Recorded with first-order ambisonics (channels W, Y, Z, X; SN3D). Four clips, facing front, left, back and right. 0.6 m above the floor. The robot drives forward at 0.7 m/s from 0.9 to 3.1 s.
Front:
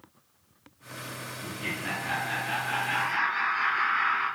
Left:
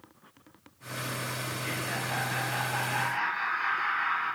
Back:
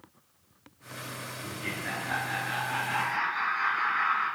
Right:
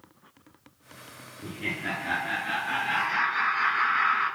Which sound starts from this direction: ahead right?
Laughter, at 1.4 s.